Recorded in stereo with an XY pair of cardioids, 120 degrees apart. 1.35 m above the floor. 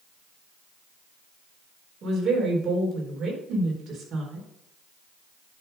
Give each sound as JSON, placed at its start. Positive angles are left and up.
{"t": 2.0, "sound": "a woman speaking", "azimuth_deg": -50, "distance_m": 4.0}